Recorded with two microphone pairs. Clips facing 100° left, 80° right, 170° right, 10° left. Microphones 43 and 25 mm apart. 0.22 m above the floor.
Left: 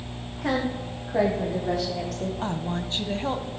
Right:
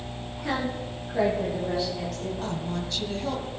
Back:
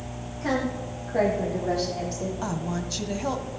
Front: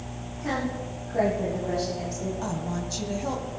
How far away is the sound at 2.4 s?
About 1.5 m.